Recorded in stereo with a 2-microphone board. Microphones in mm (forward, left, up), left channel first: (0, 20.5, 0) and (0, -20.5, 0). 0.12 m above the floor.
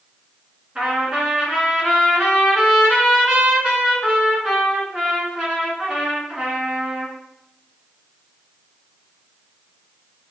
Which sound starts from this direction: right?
A trumpet, at 0.8 s.